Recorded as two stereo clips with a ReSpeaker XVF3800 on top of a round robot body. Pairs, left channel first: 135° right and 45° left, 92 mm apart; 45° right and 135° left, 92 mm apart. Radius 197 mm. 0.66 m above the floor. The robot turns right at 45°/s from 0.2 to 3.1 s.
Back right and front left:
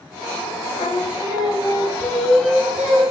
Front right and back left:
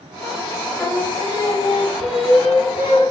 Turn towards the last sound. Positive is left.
turn(degrees=-10)